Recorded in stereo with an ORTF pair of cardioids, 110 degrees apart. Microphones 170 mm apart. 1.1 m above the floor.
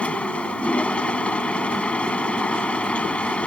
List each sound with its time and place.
0.0 s a machine running: 5° left